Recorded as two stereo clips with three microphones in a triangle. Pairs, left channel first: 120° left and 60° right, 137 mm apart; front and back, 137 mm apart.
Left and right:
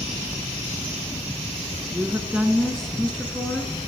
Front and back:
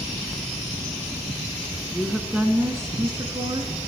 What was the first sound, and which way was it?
A woman speaking, 80° right.